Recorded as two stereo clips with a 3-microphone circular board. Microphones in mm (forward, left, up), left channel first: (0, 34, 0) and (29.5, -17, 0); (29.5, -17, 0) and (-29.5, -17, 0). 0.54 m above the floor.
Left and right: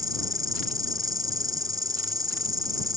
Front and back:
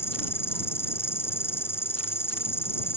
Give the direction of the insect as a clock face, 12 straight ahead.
2 o'clock.